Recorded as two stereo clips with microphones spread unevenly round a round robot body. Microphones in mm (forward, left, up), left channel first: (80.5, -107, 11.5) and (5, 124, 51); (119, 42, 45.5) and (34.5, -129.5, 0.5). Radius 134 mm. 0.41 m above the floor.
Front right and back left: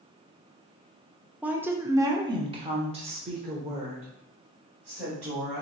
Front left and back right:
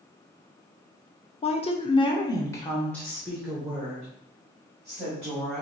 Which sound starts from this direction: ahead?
A woman speaking, at 1.4 s.